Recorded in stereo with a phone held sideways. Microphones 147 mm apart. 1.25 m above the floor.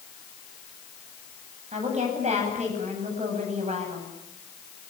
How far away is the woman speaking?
About 9.5 m.